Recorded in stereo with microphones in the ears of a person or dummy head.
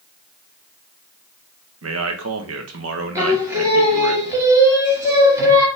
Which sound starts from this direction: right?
A man speaking, at 1.8 s.